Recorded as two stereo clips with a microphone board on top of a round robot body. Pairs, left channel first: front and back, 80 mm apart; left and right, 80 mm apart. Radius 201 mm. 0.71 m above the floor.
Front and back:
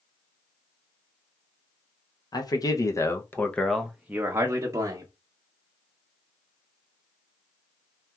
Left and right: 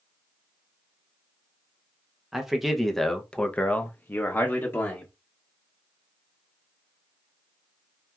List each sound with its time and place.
2.3 s a man speaking: 5° right, 1.0 m; by 5.1 s 150° left, 1.0 m